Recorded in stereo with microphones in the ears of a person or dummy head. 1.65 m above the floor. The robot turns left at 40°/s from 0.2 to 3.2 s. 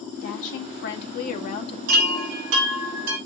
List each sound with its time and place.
0.2 s a woman speaking: 105° left, 2.0 m; by 1.8 s 40° left, 2.0 m
1.9 s a chime: 45° right, 2.5 m; by 3.2 s 95° right, 2.5 m